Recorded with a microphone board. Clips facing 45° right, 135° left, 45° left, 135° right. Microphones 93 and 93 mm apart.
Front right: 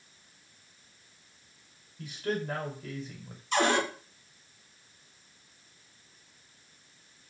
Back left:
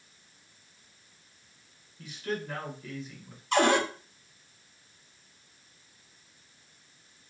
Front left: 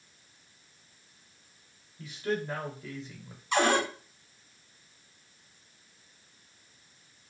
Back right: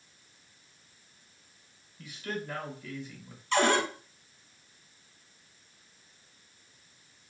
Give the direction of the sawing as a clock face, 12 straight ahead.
No sawing in this recording.